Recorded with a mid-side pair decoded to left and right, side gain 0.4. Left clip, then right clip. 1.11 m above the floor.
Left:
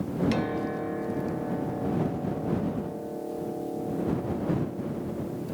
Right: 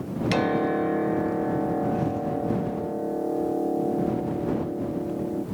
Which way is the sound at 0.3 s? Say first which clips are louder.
Right 6 dB; 55° right.